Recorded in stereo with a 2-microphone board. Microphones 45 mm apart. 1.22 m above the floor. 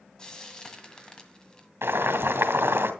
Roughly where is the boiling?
Right.